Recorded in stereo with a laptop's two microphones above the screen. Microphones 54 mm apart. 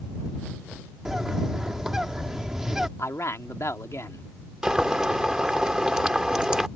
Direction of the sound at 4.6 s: 15° right (ahead or behind).